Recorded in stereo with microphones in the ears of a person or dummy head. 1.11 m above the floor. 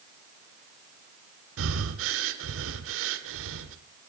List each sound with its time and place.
1.6 s breathing: 80° right, 2 m